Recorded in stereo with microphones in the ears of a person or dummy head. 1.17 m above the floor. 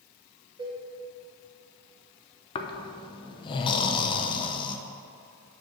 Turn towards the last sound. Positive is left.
turn(degrees=30)  # may be behind; listen again after turning